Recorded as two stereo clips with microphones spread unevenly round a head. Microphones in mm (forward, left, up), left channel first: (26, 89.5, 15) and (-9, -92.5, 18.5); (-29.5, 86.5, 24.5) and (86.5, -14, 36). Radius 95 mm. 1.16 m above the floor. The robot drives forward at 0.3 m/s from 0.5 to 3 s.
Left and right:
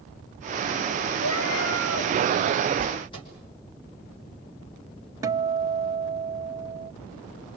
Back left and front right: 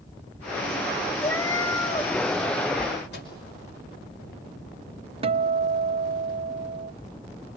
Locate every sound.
1.2 s a cat meowing: 60° left, 1.4 m; by 2.1 s 75° left, 1.3 m
3.1 s a microwave: 145° left, 5.5 m
5.2 s a guitar: 40° right, 0.5 m